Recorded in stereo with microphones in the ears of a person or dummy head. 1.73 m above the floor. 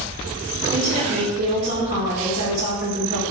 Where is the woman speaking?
35° right (ahead or behind), 0.7 m; by 3.2 s 50° right (ahead or behind), 1.9 m.